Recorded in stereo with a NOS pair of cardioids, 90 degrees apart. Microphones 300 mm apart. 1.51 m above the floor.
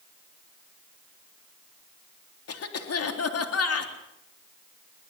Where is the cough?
50° left, 3.5 m.